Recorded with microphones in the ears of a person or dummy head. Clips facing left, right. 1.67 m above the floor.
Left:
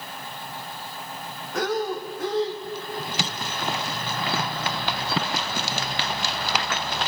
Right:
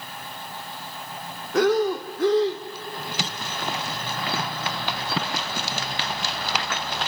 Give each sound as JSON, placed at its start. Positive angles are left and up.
{"t": 1.5, "sound": "breathing", "side_deg": -50, "distance_m": 0.7}